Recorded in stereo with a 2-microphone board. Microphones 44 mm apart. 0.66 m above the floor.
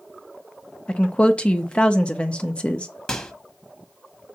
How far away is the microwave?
About 1.1 m.